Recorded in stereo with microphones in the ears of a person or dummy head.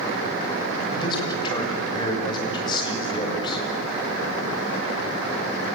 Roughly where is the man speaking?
Left.